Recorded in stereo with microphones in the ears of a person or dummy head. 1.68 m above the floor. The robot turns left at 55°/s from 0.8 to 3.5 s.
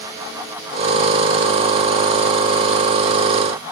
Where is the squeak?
No squeak in this recording.